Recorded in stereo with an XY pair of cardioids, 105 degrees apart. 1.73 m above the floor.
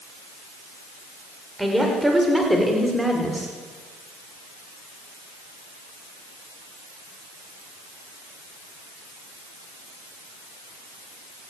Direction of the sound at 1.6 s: 5° right.